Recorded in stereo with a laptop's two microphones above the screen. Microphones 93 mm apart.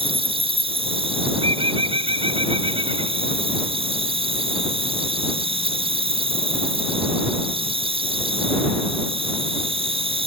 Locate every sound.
0.0 s an insect: 80° right
1.4 s a bird: 85° right